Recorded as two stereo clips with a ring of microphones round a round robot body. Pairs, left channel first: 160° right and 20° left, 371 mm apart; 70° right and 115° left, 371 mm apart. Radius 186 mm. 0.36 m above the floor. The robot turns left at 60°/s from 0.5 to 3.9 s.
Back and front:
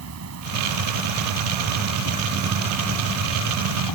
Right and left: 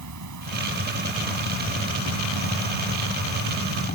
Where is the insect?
70° left; by 4.0 s 135° right.